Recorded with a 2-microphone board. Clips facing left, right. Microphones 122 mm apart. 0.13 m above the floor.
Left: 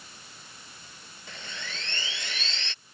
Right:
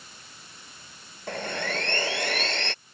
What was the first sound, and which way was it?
Sawing, 60° right (ahead or behind).